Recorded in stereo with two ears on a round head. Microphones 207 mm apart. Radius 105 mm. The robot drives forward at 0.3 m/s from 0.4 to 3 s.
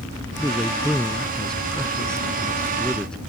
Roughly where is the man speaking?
Centre.